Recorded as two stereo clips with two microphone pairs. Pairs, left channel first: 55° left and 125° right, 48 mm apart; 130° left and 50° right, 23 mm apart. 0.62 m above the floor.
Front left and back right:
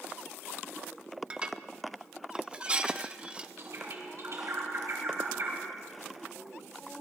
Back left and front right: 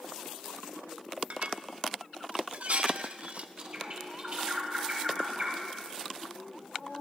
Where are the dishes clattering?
60° right, 0.6 m.